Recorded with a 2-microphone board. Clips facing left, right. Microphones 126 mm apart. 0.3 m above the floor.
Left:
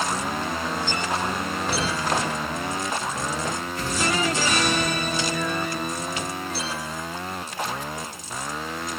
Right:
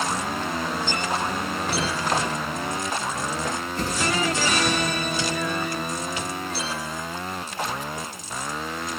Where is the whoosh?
35° right (ahead or behind), 5.5 m.